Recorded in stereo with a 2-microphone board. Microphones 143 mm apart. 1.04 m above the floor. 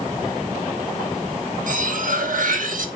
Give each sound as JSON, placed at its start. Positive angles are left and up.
{"t": 1.7, "sound": "cutlery clinking", "side_deg": -65, "distance_m": 1.0}